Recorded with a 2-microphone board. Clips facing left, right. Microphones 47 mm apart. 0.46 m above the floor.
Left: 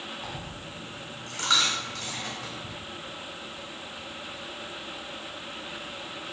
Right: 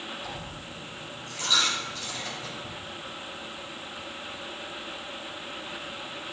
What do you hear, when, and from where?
0.2 s a dropped coin: 75° left (ahead or behind), 2 m